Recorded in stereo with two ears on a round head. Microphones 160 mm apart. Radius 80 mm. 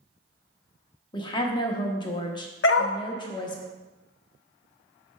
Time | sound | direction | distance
1.1 | a woman speaking | 25° left (ahead or behind) | 0.9 m
2.6 | a dog barking | 75° left (ahead or behind) | 0.8 m